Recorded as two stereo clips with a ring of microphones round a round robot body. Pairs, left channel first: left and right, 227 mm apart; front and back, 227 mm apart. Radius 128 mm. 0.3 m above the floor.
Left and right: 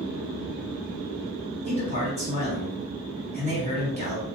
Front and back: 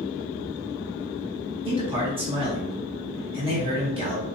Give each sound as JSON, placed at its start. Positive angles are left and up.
{"t": 1.6, "sound": "a man speaking", "azimuth_deg": -130, "distance_m": 1.6}